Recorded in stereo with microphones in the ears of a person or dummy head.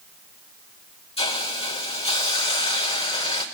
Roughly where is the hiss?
Left.